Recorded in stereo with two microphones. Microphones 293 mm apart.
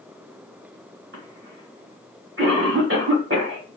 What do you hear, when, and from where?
1.1 s a cough: 40° right (ahead or behind), 1.1 m